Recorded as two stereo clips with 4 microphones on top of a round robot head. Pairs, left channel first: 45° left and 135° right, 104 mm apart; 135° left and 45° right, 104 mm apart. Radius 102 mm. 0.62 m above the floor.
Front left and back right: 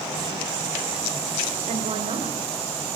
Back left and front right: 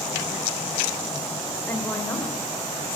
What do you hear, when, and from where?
1.7 s a woman speaking: 155° right, 3.5 m